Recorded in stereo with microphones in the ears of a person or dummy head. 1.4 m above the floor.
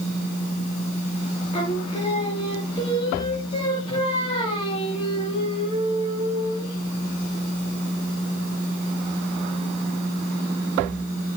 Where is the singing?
25° left (ahead or behind), 2.5 m.